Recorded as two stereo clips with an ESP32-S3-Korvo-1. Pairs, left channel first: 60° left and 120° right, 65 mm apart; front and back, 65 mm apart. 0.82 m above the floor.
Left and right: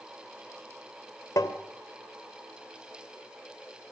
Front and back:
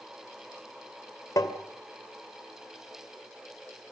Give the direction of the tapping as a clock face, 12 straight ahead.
11 o'clock.